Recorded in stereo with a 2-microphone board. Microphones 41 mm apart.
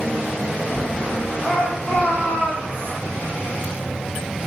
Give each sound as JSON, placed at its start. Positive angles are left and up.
{"t": 1.4, "sound": "a shout", "side_deg": 35, "distance_m": 6.5}